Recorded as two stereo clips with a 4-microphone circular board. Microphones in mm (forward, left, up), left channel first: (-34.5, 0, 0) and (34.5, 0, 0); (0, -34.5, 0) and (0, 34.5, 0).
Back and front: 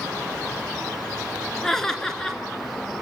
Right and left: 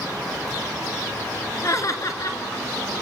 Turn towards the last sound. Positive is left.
turn(degrees=-100)